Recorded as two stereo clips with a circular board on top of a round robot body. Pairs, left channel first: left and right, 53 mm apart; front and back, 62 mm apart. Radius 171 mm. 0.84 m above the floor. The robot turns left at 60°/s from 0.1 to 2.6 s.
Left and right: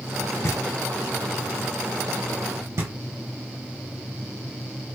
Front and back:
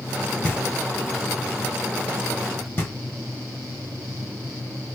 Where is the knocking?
70° left, 0.7 m; by 5.0 s 60° right, 0.7 m.